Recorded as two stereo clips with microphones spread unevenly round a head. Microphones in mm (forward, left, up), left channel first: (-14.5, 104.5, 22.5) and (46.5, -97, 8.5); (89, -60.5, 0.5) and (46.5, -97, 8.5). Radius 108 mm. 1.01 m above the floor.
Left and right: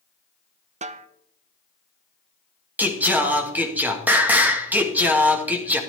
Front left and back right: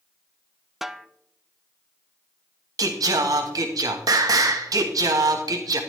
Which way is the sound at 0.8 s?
45° right.